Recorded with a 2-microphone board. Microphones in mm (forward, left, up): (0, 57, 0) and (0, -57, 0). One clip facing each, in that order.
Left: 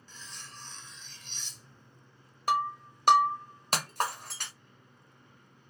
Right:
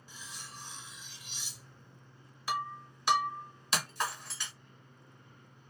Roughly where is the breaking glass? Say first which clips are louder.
Left 7 dB; left.